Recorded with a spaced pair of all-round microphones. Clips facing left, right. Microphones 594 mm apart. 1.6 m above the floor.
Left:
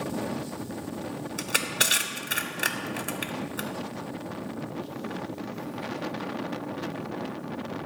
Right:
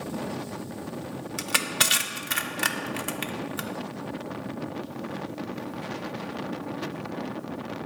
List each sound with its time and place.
1.4 s crushing: 30° right (ahead or behind), 0.6 m